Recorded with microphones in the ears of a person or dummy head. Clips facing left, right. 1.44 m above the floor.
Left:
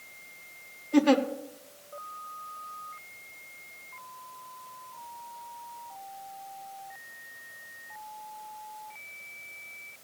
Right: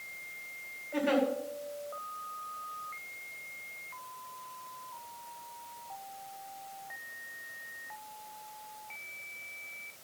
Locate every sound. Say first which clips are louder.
0.9 s a giggle: left 7 dB; 60° left (ahead or behind), 1.3 m